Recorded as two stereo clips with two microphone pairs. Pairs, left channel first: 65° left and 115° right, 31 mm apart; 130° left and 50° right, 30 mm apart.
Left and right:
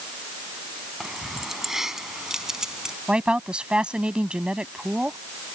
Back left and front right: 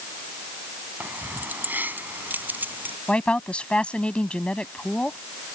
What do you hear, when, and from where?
1.0 s keys jangling: 30° right; by 3.0 s 40° right
3.1 s a woman speaking: 175° right